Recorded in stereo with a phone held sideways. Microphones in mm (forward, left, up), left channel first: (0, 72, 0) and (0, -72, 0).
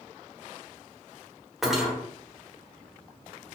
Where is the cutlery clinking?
5° right (ahead or behind), 1.0 m.